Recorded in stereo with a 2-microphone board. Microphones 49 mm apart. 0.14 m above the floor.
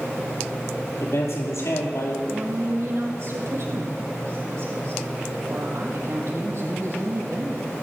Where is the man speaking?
70° left (ahead or behind), 4.5 m.